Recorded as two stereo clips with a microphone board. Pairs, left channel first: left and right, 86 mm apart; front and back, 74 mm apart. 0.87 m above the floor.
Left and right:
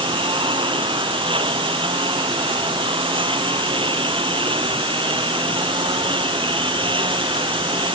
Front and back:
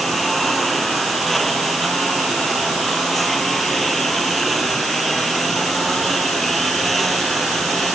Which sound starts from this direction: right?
A lawn mower, at 0.0 s.